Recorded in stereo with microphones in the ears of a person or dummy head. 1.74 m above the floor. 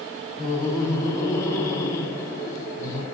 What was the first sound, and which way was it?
Laughter, 15° left (ahead or behind).